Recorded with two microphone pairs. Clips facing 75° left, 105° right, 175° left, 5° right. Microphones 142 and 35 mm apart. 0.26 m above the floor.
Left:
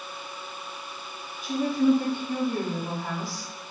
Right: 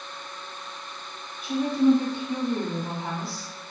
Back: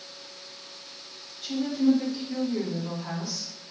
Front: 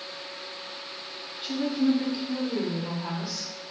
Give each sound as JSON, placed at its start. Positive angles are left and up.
{"t": 1.4, "sound": "a woman speaking", "azimuth_deg": -45, "distance_m": 2.0}